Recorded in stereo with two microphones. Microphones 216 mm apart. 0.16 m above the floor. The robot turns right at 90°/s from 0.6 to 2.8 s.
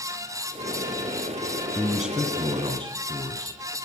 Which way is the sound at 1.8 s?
5° left (ahead or behind).